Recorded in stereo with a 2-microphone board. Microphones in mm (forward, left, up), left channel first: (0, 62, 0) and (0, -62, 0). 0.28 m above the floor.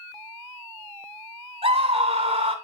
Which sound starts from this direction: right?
A scream, at 1.6 s.